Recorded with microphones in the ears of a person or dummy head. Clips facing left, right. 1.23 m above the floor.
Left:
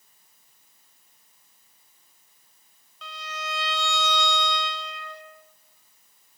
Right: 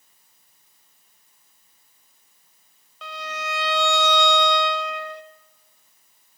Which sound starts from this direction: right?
A violin, at 3.0 s.